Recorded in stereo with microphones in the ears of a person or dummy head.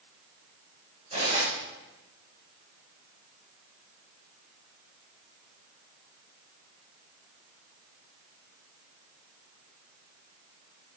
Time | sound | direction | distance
1.1 | cutlery clinking | 40° right (ahead or behind) | 4 m